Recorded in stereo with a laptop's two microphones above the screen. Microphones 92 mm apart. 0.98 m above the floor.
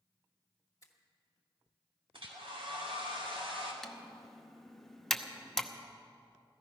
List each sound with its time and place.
0.8 s a finger snap: 35° left (ahead or behind), 1.3 m
2.1 s a hair dryer: 70° right (ahead or behind), 2.5 m
3.8 s typing on a keyboard: 5° left (ahead or behind), 0.8 m